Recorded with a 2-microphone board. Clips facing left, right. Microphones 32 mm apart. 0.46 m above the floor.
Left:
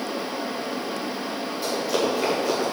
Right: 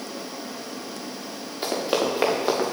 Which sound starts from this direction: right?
Running footsteps, at 1.6 s.